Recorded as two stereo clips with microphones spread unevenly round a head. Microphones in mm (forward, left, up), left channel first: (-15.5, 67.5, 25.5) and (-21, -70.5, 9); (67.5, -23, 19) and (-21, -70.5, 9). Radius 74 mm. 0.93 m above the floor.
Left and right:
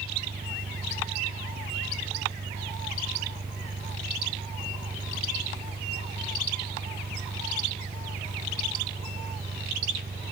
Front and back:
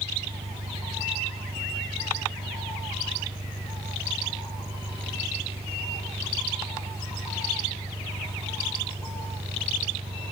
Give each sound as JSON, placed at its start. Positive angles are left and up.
{"t": 0.0, "sound": "an engine running", "azimuth_deg": -140}